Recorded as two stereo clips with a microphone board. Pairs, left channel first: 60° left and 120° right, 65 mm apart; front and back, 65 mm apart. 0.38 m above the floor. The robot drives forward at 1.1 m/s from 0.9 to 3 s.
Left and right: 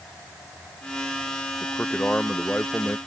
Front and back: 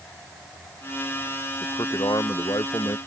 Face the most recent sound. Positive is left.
turn(degrees=-10)